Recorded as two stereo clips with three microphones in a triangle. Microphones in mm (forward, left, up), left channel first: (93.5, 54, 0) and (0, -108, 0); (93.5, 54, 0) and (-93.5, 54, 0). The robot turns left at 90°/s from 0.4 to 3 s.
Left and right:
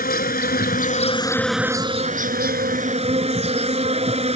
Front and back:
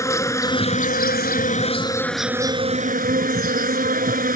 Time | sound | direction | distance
0.0 | an insect | 70° left | ?